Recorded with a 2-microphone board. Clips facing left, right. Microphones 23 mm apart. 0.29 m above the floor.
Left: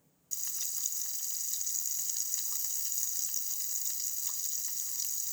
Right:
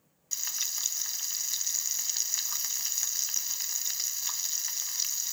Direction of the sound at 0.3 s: 45° right (ahead or behind).